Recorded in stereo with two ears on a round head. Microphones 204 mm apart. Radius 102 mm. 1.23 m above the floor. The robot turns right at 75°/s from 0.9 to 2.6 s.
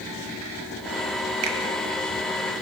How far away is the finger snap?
About 1.4 m.